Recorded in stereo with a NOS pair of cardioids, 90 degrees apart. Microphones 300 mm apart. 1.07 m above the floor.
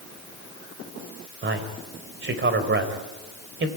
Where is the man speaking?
40° right, 4.5 m.